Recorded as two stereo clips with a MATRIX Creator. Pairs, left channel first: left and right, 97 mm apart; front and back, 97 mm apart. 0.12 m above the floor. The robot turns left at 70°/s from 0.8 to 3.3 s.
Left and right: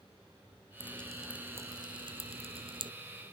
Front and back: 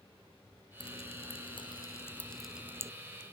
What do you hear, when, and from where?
0.8 s dripping: 25° left; by 2.9 s 125° right